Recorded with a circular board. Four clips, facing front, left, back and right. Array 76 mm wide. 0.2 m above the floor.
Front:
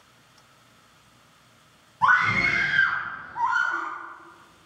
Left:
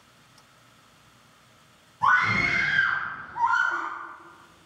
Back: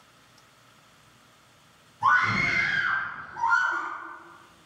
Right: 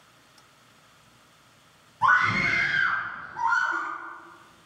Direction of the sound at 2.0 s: 10° right.